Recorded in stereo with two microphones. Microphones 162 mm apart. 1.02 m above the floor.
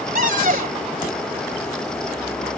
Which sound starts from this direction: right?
A cupboard door, at 0.1 s.